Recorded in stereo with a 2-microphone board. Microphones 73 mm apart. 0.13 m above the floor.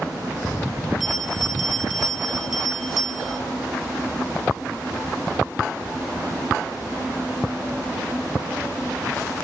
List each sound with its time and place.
1.0 s a bell: 5° right (ahead or behind), 0.7 m